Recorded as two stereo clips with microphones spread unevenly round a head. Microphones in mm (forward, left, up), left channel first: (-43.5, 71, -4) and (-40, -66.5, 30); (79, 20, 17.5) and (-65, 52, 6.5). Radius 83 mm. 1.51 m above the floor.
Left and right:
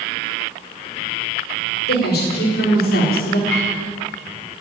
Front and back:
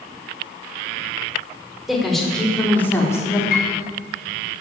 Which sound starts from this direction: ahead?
A piano, at 3.5 s.